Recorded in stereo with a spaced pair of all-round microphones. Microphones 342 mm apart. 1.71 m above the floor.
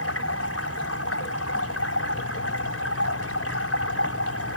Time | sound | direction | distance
0.0 | running water | 45° left (ahead or behind) | ?